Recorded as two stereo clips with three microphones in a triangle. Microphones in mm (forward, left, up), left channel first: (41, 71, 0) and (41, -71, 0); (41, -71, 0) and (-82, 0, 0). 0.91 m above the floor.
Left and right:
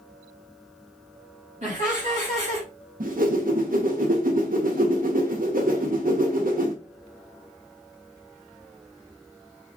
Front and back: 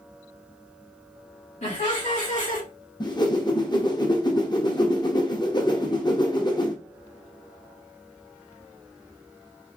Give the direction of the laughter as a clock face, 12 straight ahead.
2 o'clock.